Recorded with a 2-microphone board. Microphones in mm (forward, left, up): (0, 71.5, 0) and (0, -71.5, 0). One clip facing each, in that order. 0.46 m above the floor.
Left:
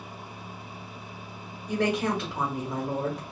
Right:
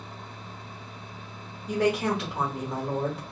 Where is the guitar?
No guitar in this recording.